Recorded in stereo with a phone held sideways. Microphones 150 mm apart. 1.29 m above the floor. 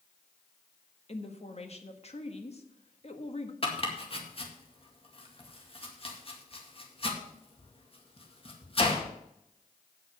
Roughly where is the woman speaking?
Left.